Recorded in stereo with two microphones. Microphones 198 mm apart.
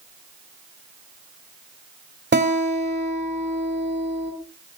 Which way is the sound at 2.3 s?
70° right (ahead or behind).